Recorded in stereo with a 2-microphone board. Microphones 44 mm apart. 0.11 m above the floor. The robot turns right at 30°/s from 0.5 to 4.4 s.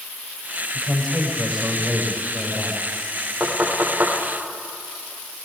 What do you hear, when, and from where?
0.7 s a woman speaking: 165° left, 7.5 m; by 2.8 s 130° right, 7.5 m
3.4 s knocking: 35° right (ahead or behind), 6.5 m; by 4.1 s 55° right (ahead or behind), 6.5 m